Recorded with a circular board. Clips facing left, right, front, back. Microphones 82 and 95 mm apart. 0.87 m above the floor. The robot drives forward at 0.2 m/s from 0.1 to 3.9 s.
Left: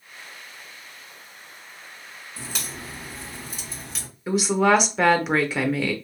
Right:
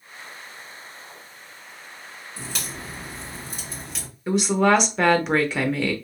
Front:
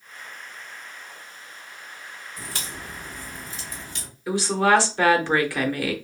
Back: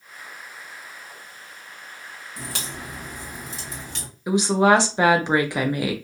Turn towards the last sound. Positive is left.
turn(degrees=175)